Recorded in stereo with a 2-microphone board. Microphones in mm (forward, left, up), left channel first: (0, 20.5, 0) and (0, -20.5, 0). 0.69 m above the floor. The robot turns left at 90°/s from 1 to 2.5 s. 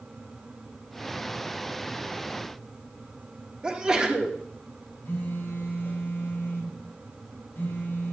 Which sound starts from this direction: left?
A phone buzzing, at 5.0 s.